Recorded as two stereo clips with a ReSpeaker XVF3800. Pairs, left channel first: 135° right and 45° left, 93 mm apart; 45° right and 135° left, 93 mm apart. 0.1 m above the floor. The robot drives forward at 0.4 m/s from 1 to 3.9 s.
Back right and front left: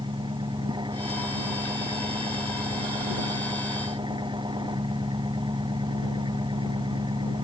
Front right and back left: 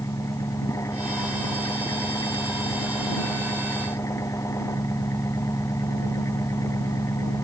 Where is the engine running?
10° left.